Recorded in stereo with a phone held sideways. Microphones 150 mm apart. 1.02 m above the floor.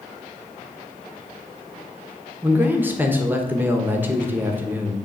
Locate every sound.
2.4 s a man speaking: 10° right (ahead or behind), 1.1 m